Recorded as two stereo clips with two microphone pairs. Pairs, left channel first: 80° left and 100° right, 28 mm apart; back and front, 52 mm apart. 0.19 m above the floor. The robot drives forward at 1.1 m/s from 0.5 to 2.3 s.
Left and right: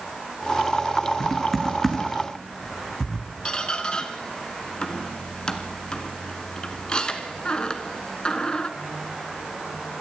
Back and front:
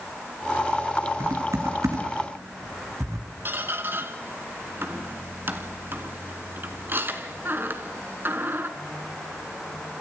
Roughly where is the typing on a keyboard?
Ahead.